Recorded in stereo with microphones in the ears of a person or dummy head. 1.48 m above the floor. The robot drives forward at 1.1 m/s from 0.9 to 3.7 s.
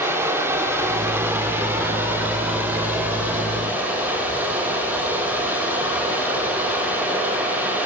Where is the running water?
15° right (ahead or behind), 4.5 m; by 7.9 s 10° right (ahead or behind), 7.5 m.